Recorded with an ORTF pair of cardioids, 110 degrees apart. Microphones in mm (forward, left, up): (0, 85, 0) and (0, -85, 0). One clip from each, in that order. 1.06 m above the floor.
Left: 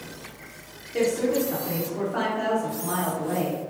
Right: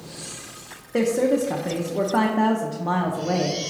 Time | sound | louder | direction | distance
0.9 | a woman speaking | right 3 dB | 50° right | 0.6 m